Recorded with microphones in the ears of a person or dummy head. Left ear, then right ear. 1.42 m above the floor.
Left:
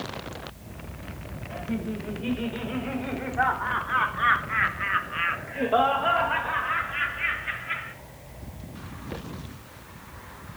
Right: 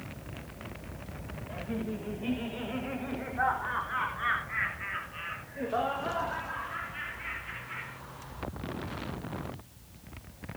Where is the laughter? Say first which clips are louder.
Left 4 dB; 5° left (ahead or behind), 6.5 m; by 8.0 s 45° left (ahead or behind), 4 m.